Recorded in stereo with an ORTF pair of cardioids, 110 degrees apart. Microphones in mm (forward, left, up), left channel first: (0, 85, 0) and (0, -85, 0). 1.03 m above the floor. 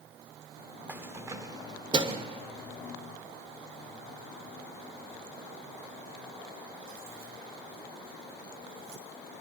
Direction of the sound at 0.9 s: 10° right.